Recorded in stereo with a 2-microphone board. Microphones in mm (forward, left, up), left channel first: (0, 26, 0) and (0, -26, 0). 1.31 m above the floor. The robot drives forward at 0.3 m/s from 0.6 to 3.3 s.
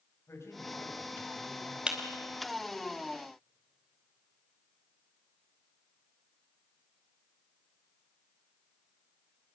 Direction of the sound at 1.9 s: 20° right (ahead or behind).